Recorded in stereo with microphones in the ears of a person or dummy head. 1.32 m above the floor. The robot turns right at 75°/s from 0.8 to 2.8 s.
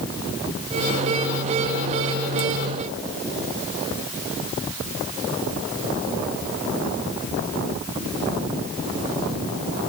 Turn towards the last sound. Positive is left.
No sound to turn to.